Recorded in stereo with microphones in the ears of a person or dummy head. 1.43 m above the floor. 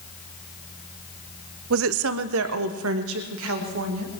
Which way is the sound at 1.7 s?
65° right (ahead or behind).